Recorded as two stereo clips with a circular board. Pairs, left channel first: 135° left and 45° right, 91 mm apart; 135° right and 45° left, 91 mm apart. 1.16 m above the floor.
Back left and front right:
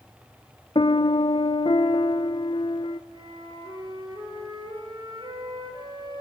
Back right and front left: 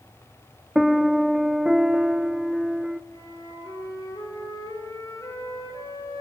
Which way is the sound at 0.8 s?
130° left.